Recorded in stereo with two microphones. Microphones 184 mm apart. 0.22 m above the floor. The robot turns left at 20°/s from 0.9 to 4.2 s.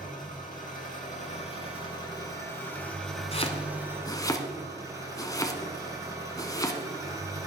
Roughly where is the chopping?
Left.